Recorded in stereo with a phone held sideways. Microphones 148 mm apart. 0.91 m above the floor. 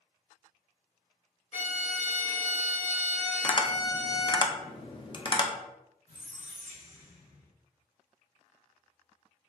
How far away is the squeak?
About 2.0 m.